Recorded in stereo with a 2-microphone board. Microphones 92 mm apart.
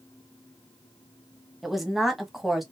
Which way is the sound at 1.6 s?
Centre (ahead or behind).